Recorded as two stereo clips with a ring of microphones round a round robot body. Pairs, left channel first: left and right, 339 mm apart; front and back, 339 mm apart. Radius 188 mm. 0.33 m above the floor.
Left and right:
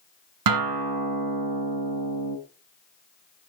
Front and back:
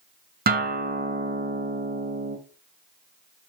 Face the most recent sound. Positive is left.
turn(degrees=-115)